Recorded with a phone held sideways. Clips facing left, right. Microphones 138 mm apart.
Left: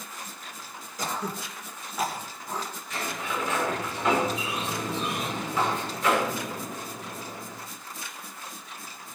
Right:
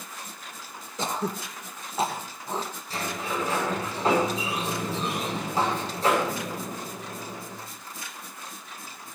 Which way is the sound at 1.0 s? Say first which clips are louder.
Right 3 dB; 25° right (ahead or behind).